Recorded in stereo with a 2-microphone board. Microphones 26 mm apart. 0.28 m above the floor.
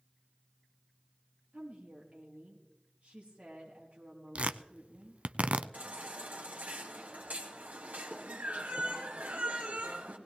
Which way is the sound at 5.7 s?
75° right (ahead or behind).